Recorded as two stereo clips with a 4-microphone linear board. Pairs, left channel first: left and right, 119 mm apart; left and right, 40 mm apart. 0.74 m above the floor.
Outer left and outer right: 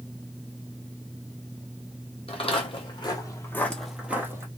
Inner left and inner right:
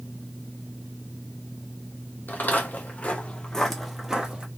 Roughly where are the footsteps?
Left.